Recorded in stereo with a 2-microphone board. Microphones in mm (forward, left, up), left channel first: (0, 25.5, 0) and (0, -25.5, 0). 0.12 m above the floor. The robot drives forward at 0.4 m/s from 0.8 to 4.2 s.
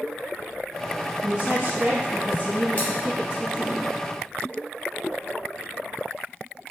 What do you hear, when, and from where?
1.2 s a woman speaking: 30° right (ahead or behind), 1.4 m; by 3.8 s 25° right (ahead or behind), 1.7 m
2.8 s scissors: 30° left (ahead or behind), 1.9 m